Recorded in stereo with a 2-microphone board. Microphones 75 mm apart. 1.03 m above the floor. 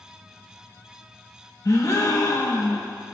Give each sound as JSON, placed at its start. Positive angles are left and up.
{"t": 1.6, "sound": "a gasp", "side_deg": 50, "distance_m": 1.2}